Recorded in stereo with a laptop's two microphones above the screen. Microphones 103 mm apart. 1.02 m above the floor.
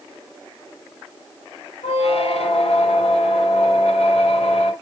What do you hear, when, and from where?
1.8 s a squeak: 85° left, 2.0 m